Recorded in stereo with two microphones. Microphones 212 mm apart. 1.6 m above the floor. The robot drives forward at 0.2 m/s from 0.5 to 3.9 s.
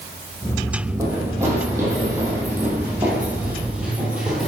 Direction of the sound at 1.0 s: 15° right (ahead or behind).